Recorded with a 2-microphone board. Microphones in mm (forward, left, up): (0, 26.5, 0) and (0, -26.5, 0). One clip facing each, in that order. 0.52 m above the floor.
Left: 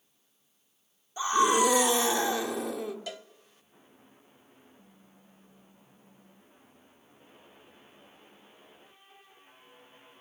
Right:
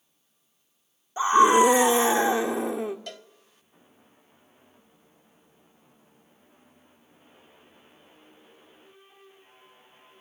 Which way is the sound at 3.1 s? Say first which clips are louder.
Left 1 dB; 5° left (ahead or behind).